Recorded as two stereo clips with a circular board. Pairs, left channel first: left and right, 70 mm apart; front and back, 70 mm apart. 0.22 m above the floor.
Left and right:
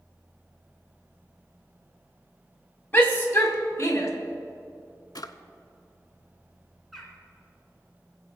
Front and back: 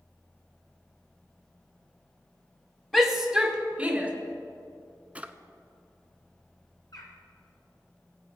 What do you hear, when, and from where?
2.9 s a shout: 80° left, 1.1 m; by 4.1 s 120° left, 1.3 m
5.2 s a drawer: 110° left, 0.5 m
6.9 s a bird: straight ahead, 1.9 m